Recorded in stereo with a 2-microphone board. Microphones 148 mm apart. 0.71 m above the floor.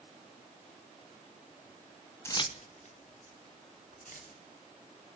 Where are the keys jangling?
15° left (ahead or behind), 0.5 m; by 4.3 s 75° left (ahead or behind), 3 m.